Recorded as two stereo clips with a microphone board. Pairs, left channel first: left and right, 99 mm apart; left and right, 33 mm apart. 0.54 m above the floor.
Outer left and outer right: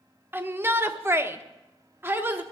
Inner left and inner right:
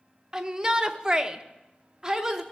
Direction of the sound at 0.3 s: 20° right (ahead or behind).